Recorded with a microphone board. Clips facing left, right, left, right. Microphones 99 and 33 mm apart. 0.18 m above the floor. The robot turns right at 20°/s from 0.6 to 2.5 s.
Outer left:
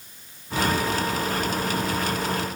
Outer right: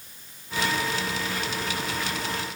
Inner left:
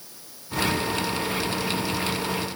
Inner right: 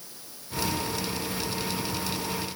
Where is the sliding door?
I don't hear a sliding door.